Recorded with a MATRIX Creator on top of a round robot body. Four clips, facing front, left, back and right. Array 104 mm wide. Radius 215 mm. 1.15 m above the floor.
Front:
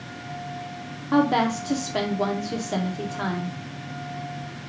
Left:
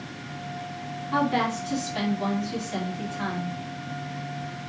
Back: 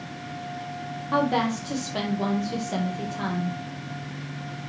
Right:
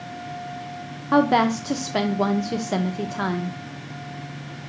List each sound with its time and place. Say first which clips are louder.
1.1 s a woman speaking: right 7 dB, front 3 dB; 80° right, 0.6 m